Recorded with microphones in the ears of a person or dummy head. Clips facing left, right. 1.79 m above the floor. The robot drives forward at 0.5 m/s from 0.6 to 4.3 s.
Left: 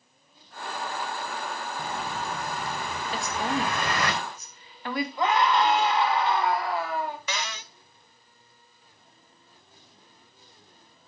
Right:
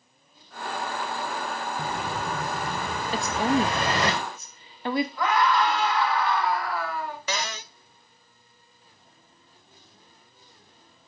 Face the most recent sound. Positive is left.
turn(degrees=-35)  # may be behind; listen again after turning